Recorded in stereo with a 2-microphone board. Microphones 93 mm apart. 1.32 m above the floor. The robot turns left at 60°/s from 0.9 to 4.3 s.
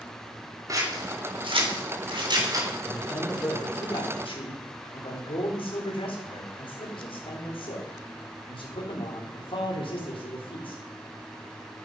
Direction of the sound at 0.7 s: 40° right (ahead or behind).